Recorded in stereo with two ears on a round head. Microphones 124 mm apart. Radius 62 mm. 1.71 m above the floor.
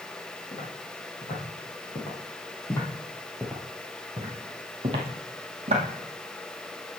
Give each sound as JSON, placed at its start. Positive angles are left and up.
{"t": 0.5, "sound": "footsteps", "side_deg": 50, "distance_m": 4.0}